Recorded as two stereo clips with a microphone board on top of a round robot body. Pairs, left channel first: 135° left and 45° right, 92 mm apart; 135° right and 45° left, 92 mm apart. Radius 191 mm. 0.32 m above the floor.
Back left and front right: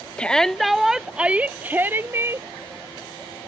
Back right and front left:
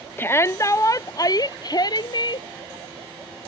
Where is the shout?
160° right; by 2.5 s 105° right.